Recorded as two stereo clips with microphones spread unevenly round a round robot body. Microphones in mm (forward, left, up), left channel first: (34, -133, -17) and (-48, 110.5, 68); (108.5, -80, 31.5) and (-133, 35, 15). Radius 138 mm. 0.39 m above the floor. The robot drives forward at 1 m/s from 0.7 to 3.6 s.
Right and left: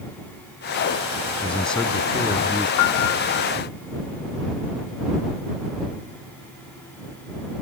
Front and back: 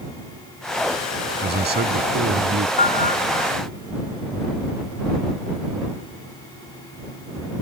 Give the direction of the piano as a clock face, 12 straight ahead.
3 o'clock.